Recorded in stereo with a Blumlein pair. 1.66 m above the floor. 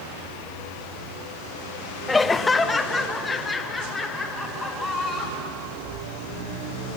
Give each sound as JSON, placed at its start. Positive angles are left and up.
{"t": 2.1, "sound": "laughter", "azimuth_deg": 15, "distance_m": 0.6}